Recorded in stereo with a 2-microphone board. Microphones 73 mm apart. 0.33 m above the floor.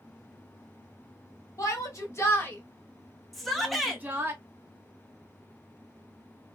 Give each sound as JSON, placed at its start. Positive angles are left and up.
{"t": 1.6, "sound": "a shout", "side_deg": 45, "distance_m": 1.4}
{"t": 3.3, "sound": "a shout", "side_deg": 0, "distance_m": 1.0}